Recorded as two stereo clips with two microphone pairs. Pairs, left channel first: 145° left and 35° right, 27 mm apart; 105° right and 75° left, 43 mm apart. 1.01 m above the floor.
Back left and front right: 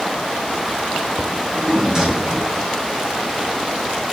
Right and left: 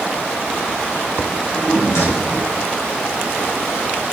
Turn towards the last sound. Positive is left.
turn(degrees=-100)